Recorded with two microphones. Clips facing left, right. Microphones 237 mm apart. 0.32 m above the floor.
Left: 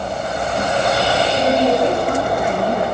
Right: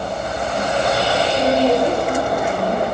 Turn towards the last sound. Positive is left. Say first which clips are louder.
# right 1 dB
turn(degrees=65)  # may be behind; listen again after turning